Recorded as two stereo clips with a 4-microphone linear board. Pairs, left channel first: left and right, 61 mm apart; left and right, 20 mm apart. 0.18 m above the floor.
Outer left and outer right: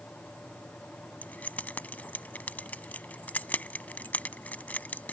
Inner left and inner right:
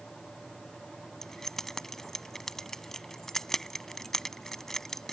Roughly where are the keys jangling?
Left.